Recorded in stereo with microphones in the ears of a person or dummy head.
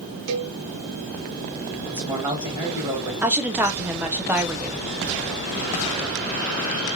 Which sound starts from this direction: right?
A cowbell, at 0.3 s.